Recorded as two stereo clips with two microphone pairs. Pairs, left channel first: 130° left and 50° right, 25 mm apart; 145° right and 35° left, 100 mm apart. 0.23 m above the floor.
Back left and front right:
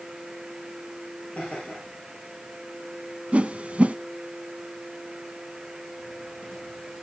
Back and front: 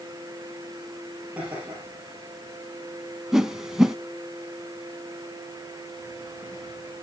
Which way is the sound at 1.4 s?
110° left.